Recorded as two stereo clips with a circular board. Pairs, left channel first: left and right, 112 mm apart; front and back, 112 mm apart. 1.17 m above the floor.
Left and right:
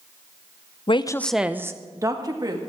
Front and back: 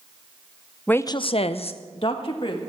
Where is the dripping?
I don't hear dripping.